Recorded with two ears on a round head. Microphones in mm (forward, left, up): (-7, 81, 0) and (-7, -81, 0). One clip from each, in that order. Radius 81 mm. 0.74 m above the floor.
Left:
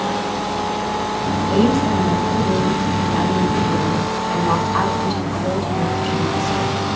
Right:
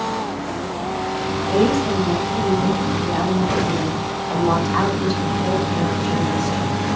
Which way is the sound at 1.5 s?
35° right (ahead or behind).